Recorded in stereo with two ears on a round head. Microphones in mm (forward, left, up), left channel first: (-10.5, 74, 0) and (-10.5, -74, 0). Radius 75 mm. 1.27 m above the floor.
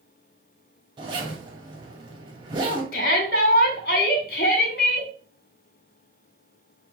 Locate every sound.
1.0 s a zipper: 30° right (ahead or behind), 2 m
2.9 s a shout: 55° left (ahead or behind), 3 m